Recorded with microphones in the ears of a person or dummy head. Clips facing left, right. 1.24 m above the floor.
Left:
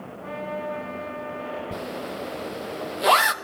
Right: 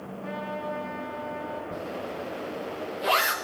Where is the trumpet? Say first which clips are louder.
Left 3 dB; 10° left (ahead or behind), 7.5 m.